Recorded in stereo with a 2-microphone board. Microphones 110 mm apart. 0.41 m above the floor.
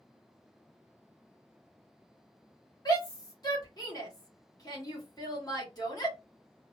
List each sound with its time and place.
2.9 s a shout: 35° left (ahead or behind), 1.5 m